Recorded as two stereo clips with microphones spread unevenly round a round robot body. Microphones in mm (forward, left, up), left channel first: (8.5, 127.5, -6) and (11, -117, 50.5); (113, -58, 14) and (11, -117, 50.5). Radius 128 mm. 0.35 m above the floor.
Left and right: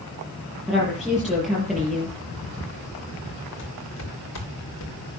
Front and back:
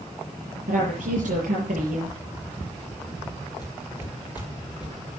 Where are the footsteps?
130° left, 6.5 m; by 4.9 s 125° left, 7 m.